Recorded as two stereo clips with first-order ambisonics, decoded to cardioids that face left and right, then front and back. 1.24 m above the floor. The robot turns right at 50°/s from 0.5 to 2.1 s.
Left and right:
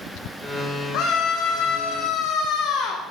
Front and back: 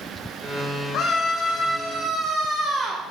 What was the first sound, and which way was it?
A scream, 45° left.